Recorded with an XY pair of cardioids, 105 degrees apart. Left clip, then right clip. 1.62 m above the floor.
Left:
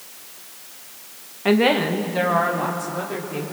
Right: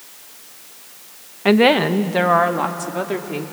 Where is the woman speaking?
30° right, 1.2 m; by 3.4 s 60° right, 4 m.